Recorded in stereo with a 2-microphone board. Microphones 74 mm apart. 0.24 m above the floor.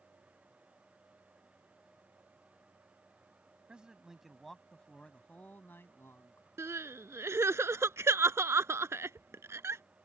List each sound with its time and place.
3.7 s a man speaking: 15° right (ahead or behind); by 6.5 s 40° left (ahead or behind)
6.6 s crying: 40° right (ahead or behind)